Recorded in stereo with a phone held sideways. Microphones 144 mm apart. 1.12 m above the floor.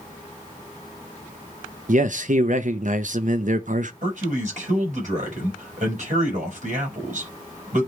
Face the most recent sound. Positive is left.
turn(degrees=-60)  # may be behind; listen again after turning